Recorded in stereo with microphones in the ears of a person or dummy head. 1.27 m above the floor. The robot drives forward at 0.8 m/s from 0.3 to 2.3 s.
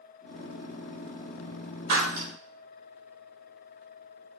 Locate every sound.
1.9 s breaking glass: 55° right (ahead or behind), 5 m; by 2.3 s 50° right (ahead or behind), 5 m